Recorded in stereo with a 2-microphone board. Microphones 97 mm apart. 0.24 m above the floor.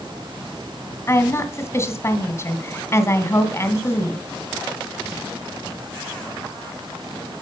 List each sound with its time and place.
1.1 s a woman speaking: 30° left (ahead or behind), 1.5 m